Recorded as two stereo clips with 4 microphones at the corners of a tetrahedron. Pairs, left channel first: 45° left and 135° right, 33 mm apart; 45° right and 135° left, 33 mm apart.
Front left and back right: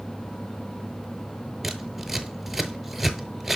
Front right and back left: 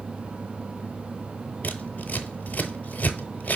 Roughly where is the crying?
I don't hear crying.